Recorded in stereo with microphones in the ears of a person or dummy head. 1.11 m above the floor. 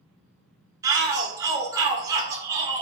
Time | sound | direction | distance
0.8 | a shout | 15° right (ahead or behind) | 1.0 m